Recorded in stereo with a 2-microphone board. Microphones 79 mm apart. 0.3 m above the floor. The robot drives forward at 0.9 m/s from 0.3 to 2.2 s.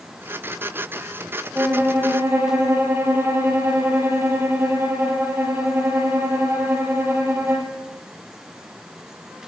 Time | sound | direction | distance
1.6 | a violin | 25° right (ahead or behind) | 4.5 m